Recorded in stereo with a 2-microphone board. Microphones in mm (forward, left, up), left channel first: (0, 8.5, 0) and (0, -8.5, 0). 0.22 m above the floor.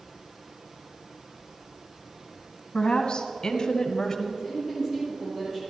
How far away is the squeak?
No squeak in this recording.